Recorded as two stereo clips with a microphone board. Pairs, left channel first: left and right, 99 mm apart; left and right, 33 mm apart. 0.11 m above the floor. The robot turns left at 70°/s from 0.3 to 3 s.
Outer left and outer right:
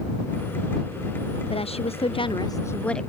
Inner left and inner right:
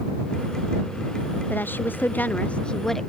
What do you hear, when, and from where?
1.5 s a woman speaking: 110° left; by 3.1 s 5° left